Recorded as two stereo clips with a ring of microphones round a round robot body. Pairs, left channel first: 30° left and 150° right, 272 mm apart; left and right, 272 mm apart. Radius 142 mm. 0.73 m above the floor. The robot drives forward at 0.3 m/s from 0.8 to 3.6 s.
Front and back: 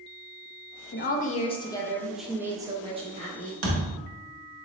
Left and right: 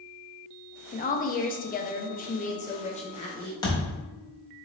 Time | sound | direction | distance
0.9 | a woman speaking | 50° left | 0.6 m
3.6 | a thud | 165° left | 1.2 m